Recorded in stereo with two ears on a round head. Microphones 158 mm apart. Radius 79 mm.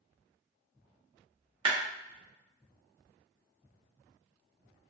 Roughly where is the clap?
Right.